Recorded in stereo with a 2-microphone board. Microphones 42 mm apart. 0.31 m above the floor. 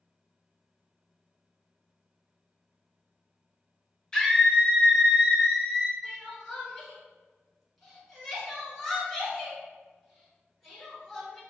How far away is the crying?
About 1.6 m.